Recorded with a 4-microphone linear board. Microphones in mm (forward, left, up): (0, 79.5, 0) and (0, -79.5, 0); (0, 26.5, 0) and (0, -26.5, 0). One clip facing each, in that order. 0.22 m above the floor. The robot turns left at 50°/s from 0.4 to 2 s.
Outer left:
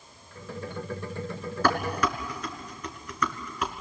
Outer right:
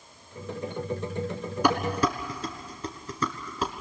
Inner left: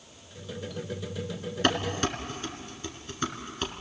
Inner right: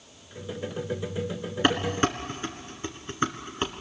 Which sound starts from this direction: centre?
Dishes clattering, at 1.6 s.